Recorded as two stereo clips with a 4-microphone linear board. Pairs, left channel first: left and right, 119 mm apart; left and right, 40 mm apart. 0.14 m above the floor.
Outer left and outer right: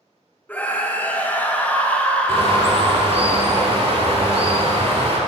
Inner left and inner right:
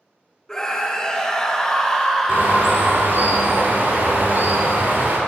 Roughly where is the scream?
Centre.